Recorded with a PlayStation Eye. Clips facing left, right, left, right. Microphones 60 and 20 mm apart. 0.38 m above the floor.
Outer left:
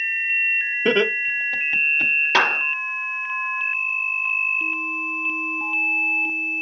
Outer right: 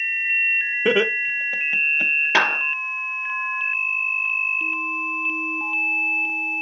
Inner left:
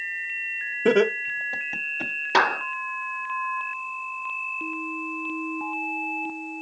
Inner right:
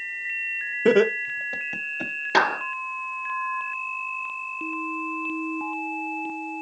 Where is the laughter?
5° right (ahead or behind), 0.9 m.